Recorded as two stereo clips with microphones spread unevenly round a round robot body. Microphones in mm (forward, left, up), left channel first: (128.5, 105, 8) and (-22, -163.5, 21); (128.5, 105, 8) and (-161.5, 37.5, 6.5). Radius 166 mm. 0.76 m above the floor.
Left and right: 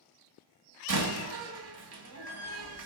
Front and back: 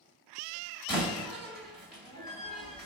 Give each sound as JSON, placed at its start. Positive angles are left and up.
{"t": 0.9, "sound": "a door slam", "azimuth_deg": -75, "distance_m": 2.5}